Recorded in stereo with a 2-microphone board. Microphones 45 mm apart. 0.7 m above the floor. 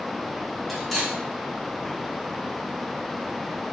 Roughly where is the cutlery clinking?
Centre.